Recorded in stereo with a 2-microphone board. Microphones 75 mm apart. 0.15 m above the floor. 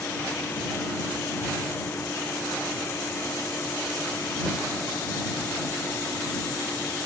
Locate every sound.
Only background noise.